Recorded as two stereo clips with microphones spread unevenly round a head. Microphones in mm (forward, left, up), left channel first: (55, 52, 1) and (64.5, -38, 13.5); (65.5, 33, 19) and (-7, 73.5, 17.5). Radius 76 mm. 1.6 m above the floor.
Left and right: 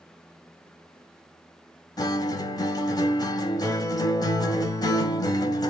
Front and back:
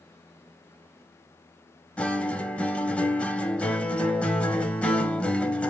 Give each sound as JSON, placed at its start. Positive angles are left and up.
{"t": 2.0, "sound": "a guitar", "azimuth_deg": 50, "distance_m": 0.8}